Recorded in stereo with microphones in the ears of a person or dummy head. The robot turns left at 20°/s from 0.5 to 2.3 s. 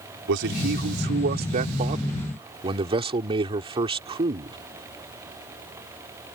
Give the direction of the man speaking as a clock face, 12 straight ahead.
4 o'clock.